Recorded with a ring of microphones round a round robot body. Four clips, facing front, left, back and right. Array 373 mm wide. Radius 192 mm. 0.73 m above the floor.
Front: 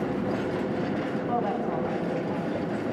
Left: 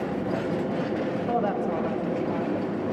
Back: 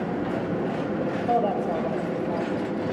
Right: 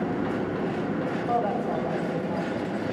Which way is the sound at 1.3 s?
155° left.